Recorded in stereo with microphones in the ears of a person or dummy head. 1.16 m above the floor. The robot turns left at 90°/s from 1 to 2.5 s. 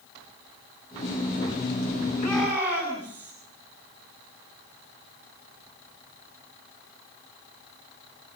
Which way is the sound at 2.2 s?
20° left (ahead or behind).